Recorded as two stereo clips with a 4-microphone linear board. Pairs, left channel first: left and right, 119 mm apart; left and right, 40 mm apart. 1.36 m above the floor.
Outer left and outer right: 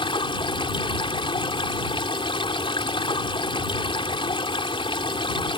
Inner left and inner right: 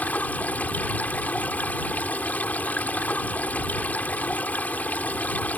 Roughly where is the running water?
Left.